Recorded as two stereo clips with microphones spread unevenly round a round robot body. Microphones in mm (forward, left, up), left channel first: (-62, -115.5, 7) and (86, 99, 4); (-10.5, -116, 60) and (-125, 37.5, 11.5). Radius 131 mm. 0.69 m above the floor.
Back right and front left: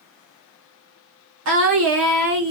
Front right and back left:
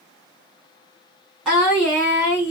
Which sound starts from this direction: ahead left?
Singing, at 1.4 s.